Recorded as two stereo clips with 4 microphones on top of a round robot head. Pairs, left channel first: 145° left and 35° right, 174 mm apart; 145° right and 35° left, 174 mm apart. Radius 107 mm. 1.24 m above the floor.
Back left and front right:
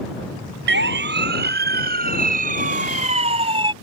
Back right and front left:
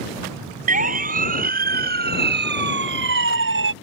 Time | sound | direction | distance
0.7 | a siren | 10° right | ?